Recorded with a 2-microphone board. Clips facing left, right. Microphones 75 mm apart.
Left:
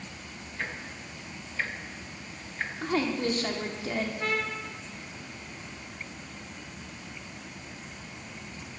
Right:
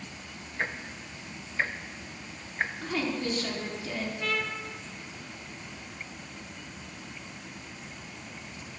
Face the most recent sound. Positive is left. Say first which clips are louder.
# left 1 dB
turn(degrees=35)  # may be behind; listen again after turning